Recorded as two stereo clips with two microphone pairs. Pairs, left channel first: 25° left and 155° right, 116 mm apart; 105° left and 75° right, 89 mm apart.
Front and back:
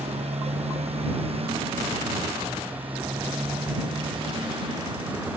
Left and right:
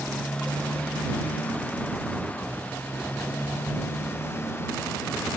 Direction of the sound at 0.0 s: 175° right.